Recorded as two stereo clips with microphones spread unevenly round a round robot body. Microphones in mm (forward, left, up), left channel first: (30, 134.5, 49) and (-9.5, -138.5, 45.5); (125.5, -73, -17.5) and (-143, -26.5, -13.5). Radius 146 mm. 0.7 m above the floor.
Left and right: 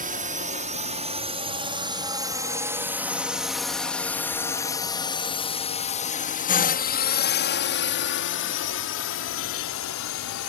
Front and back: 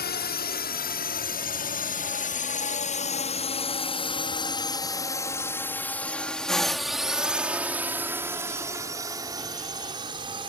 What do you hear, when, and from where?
0.0 s a drone: 50° right; by 10.5 s 100° left